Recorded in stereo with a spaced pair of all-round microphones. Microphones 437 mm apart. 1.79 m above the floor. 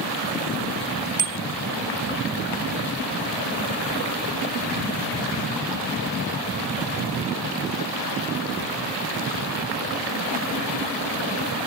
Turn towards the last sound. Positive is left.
turn(degrees=-80)